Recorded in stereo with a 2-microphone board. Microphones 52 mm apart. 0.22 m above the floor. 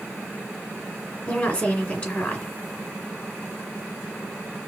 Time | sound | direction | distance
1.3 | a woman speaking | 20° left (ahead or behind) | 2 m